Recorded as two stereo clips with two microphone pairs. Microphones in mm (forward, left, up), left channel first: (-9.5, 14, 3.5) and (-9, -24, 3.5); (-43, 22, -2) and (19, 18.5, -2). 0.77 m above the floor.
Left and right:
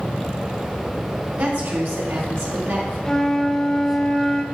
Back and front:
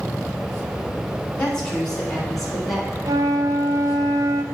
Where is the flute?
15° left, 0.5 m.